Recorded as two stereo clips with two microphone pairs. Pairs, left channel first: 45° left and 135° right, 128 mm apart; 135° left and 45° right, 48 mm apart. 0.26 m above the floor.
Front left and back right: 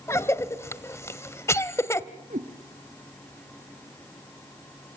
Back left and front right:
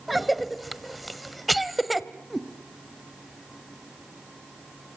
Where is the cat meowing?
130° right, 2 m.